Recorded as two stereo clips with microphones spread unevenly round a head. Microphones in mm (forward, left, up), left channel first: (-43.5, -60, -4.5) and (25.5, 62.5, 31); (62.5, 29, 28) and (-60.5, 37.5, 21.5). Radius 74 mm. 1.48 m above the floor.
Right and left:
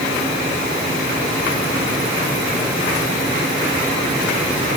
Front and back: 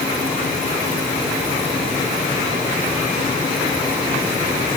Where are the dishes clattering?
No dishes clattering in this recording.